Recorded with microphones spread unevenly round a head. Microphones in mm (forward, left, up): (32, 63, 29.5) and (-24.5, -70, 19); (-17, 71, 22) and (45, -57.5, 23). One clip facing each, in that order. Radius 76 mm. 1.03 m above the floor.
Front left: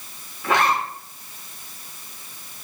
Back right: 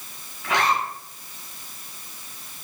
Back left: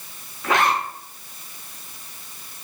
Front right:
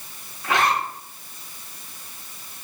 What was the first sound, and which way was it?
A zipper, 110° left.